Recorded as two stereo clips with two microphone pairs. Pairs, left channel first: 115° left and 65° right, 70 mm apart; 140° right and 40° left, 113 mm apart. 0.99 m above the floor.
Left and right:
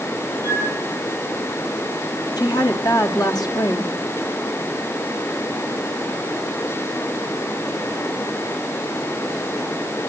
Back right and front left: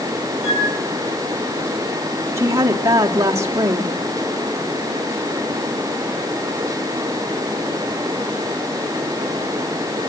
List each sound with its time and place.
0.4 s a flute: 125° right, 7 m
2.4 s a woman speaking: 105° left, 2 m